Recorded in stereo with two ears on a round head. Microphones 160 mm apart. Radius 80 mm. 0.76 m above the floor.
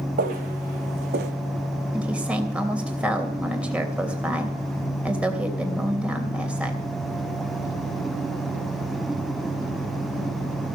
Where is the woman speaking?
5° right (ahead or behind), 3 m.